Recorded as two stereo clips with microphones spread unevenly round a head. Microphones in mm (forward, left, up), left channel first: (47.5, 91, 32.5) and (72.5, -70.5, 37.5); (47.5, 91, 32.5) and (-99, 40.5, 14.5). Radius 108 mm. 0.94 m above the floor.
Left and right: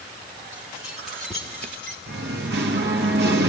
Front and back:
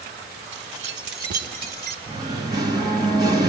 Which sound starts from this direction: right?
Singing, at 2.1 s.